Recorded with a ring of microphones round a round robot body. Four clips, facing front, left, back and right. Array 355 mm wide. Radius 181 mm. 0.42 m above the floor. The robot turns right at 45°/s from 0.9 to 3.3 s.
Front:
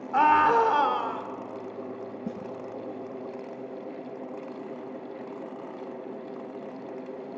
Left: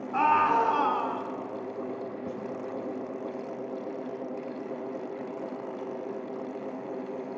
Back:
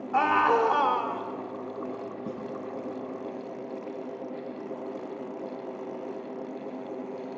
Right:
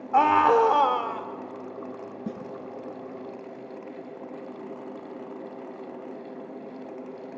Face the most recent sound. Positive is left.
turn(degrees=-40)